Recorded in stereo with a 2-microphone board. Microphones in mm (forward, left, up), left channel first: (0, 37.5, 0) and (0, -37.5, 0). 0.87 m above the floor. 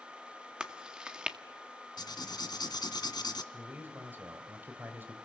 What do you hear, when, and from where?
0.6 s chewing: 10° right (ahead or behind), 1.8 m
2.0 s writing: 70° left (ahead or behind), 1.8 m
3.5 s a man speaking: 25° right (ahead or behind), 3 m